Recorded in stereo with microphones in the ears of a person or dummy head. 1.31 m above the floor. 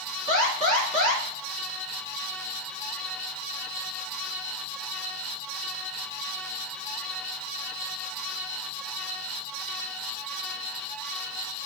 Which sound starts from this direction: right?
An alarm, at 0.3 s.